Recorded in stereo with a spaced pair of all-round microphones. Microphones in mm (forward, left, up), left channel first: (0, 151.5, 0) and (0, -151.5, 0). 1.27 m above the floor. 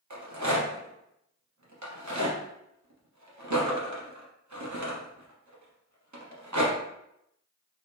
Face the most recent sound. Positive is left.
turn(degrees=-70)  # may be behind; listen again after turning